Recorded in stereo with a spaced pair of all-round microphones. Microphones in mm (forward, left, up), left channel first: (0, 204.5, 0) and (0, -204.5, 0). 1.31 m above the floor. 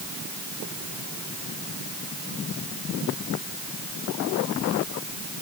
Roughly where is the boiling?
I don't hear boiling.